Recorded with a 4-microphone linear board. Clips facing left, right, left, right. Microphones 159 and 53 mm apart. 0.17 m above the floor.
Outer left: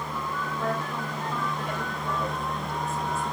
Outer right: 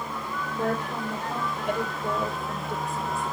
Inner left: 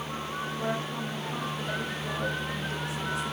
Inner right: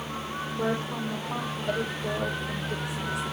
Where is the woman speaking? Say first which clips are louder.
Outer right 4 dB, inner right 5 dB; 60° right (ahead or behind), 5.5 m.